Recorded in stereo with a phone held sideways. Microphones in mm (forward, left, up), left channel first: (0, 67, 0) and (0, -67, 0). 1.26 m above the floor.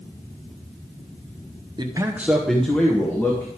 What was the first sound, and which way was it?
A man speaking, 35° right (ahead or behind).